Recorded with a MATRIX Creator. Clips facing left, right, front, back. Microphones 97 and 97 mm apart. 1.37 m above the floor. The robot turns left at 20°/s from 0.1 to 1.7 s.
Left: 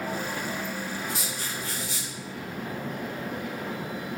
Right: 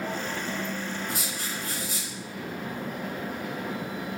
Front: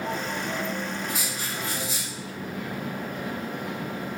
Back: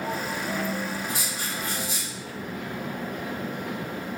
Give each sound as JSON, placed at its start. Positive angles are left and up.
{"t": 1.1, "sound": "writing", "azimuth_deg": -125, "distance_m": 5.0}